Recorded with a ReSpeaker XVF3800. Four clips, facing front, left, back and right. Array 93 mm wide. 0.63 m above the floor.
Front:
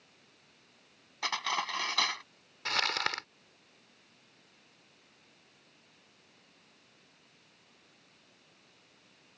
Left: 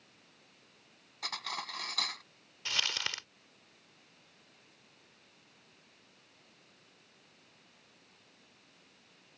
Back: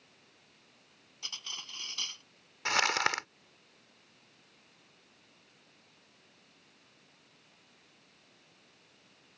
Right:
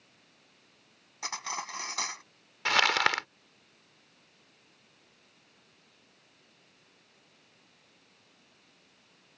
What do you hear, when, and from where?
1.2 s cutlery clinking: 20° right
2.6 s crumpling: 105° right